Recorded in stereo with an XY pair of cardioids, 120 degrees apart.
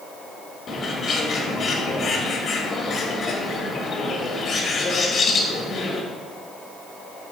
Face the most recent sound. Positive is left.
turn(degrees=45)